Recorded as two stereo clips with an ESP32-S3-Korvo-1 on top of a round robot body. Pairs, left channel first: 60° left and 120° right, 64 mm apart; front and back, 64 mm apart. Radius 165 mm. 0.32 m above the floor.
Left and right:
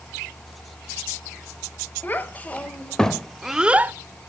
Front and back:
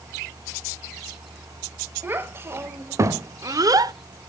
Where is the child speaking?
120° left, 1.5 m; by 3.9 s straight behind, 0.8 m.